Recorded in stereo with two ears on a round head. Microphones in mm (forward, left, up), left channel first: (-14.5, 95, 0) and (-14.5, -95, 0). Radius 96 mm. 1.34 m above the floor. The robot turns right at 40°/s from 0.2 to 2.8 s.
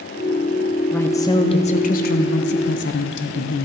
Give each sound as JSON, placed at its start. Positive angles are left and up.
{"t": 0.9, "sound": "a woman speaking", "azimuth_deg": 10, "distance_m": 0.7}